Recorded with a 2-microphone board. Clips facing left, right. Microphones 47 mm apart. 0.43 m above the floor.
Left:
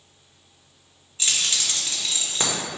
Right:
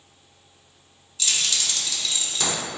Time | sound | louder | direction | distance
1.2 | keys jangling | even | 30° left (ahead or behind) | 0.8 m